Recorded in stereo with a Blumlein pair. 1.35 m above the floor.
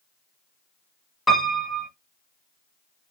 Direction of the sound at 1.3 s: 10° left.